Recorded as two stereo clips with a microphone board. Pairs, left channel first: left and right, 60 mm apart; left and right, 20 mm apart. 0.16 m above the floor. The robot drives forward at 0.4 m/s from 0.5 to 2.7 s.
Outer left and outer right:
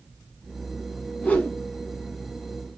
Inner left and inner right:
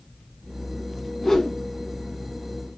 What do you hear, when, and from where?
1.2 s a whoosh: 20° left (ahead or behind), 0.6 m; by 1.6 s 25° left (ahead or behind), 0.5 m